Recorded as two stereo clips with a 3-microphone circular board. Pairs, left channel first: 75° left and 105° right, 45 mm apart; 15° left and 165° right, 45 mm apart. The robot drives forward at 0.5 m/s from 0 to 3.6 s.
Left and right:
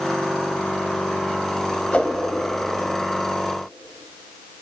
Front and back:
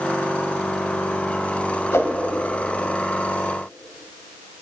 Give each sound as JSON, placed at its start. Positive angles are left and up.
{"t": 1.9, "sound": "a whoosh", "azimuth_deg": 15, "distance_m": 0.8}